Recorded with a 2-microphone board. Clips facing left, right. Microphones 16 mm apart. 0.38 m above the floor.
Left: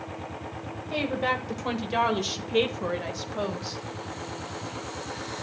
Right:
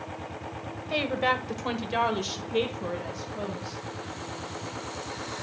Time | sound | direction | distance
0.9 | a woman speaking | 25° right (ahead or behind) | 1.7 m